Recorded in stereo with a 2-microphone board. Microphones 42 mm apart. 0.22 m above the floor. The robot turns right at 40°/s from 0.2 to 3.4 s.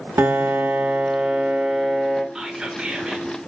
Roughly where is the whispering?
Centre.